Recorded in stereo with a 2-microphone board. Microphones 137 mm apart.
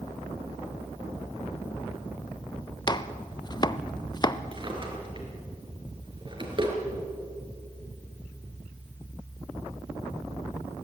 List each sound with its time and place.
2.9 s chopping: 30° left (ahead or behind), 0.6 m
4.5 s a drawer: 35° right (ahead or behind), 3.5 m